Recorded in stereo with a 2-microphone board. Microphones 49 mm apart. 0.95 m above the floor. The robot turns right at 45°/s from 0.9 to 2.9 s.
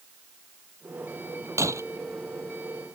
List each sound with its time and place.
1.6 s breaking glass: 85° right; by 1.8 s 75° right (ahead or behind)